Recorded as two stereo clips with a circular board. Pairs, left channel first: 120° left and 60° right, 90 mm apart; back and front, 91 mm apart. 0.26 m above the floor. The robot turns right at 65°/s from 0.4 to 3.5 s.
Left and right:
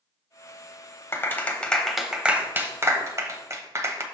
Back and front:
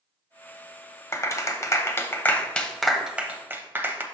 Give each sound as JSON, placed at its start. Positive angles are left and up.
{"t": 1.1, "sound": "a clap", "azimuth_deg": 160, "distance_m": 0.8}